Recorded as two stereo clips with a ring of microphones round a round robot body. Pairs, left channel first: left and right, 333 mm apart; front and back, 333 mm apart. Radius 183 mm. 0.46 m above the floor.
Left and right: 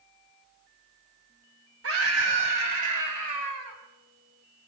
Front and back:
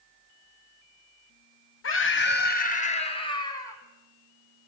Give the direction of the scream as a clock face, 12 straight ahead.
2 o'clock.